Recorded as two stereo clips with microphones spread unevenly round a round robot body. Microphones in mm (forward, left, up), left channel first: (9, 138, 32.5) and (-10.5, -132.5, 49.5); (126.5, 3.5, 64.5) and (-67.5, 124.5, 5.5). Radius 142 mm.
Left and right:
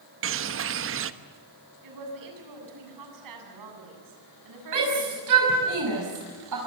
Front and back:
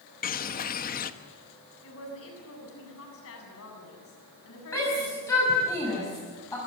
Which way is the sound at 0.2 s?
90° right.